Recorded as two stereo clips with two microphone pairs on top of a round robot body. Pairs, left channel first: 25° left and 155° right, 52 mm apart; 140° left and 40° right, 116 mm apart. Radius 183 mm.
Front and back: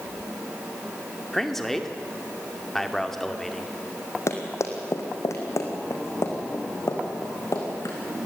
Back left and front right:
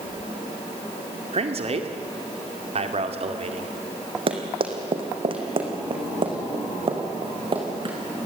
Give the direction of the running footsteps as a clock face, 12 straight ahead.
12 o'clock.